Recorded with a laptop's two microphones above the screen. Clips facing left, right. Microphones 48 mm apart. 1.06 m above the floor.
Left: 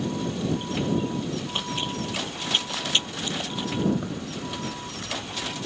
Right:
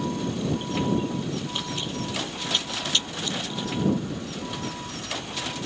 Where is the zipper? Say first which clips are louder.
Even; 75° left (ahead or behind).